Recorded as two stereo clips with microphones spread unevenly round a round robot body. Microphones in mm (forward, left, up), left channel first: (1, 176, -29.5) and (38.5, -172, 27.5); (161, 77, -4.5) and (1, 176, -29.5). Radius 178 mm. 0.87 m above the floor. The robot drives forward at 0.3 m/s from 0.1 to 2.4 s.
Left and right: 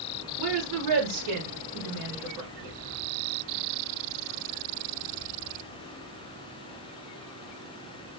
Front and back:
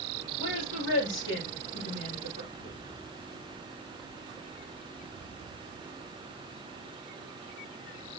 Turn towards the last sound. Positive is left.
turn(degrees=-55)